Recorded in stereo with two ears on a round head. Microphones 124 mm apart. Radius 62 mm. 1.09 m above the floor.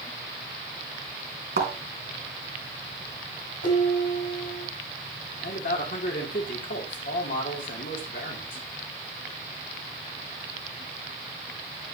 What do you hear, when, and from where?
1.6 s a thud: 75° right (ahead or behind), 3.5 m
3.6 s dishes clattering: 65° left (ahead or behind), 6 m
5.4 s a man speaking: 70° left (ahead or behind), 2.5 m